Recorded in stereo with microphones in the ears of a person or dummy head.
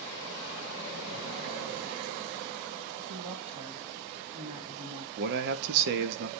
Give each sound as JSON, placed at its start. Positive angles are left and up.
{"t": 3.1, "sound": "a woman speaking", "side_deg": -30, "distance_m": 2.0}
{"t": 5.2, "sound": "a man speaking", "side_deg": -60, "distance_m": 1.2}